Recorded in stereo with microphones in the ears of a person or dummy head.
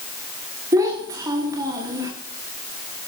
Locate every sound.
0.7 s a child speaking: 20° right (ahead or behind), 1.8 m